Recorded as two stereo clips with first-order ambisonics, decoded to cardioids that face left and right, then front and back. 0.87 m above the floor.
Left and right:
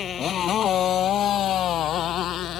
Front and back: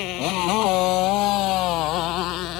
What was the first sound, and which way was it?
A motorcycle, 30° left.